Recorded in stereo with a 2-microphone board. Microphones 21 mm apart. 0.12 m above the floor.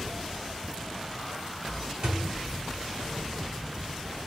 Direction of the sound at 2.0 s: 40° right (ahead or behind).